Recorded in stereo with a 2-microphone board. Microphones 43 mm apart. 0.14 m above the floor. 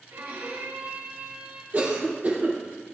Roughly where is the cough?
Right.